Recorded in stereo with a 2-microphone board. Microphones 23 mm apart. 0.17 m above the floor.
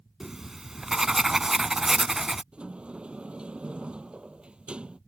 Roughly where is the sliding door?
Right.